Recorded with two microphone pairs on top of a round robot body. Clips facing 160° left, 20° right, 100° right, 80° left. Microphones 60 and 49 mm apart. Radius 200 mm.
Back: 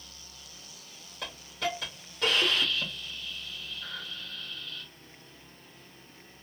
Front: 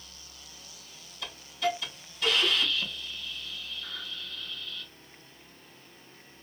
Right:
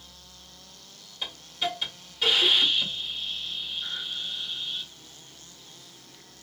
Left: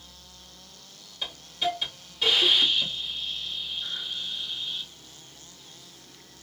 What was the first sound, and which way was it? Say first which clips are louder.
A hiss: front 3 dB, left 2 dB; 175° left.